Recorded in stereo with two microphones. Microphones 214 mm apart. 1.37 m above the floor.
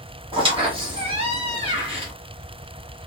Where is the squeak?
25° right (ahead or behind), 1.4 m.